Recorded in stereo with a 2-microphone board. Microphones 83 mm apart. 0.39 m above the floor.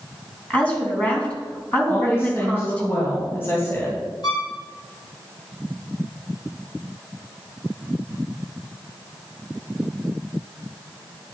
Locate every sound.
0.5 s a woman speaking: 15° left (ahead or behind), 3.5 m
1.9 s a woman speaking: 30° left (ahead or behind), 3 m
4.2 s a violin: 55° left (ahead or behind), 3.5 m